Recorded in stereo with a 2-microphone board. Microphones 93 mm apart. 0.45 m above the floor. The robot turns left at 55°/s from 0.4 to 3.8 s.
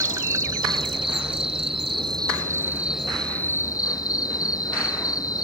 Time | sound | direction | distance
0.0 | an insect | 35° right | ?